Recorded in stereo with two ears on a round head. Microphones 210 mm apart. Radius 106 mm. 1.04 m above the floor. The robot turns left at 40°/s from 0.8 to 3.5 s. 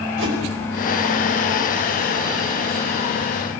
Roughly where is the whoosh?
Right.